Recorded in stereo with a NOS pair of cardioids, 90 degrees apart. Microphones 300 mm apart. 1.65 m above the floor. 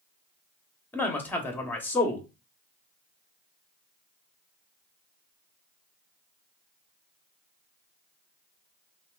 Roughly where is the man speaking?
Ahead.